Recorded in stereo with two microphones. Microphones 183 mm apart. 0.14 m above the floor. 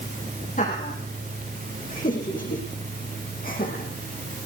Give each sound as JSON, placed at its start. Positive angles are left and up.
{"t": 0.6, "sound": "laughter", "side_deg": 45, "distance_m": 7.0}